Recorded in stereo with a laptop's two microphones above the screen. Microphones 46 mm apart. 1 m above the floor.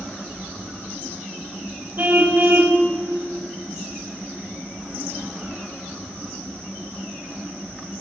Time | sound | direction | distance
2.0 | a car horn | 40° right (ahead or behind) | 2 m